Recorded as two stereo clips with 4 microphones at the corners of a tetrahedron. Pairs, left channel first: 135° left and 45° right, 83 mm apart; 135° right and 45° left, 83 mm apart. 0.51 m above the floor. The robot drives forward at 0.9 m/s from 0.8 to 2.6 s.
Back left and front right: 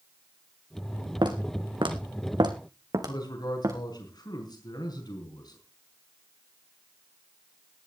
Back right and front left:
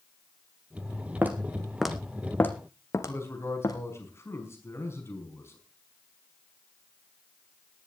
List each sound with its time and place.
1.2 s footsteps: 20° right, 2 m; by 3.8 s 90° right, 2 m
3.1 s a man speaking: 170° left, 4.5 m